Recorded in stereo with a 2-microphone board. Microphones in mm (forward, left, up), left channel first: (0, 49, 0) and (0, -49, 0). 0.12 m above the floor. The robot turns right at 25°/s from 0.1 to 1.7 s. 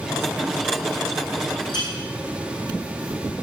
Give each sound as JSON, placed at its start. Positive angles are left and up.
{"t": 1.7, "sound": "a clink", "side_deg": 55, "distance_m": 3.5}